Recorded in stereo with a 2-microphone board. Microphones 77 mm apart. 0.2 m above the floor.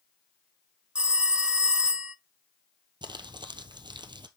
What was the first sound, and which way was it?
A phone ringing, 15° right (ahead or behind).